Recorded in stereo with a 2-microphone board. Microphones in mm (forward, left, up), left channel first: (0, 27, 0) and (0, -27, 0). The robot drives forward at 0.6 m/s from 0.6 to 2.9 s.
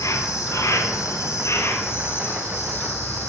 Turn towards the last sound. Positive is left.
turn(degrees=35)  # may be behind; listen again after turning